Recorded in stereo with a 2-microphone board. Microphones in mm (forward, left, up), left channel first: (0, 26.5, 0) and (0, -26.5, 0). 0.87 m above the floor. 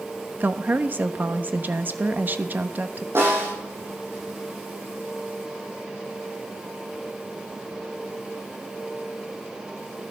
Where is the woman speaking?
35° right (ahead or behind), 1.0 m.